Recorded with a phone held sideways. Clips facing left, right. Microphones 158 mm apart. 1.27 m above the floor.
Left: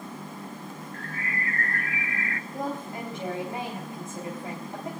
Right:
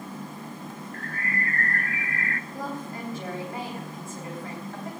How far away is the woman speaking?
About 3.5 m.